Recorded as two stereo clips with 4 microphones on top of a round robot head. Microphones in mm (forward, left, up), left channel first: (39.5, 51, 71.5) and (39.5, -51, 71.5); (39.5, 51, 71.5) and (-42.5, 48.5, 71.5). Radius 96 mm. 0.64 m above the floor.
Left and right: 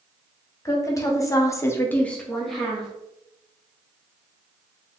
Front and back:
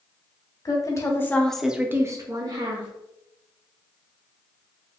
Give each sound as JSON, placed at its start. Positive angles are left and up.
{"t": 0.7, "sound": "a woman speaking", "azimuth_deg": 35, "distance_m": 1.5}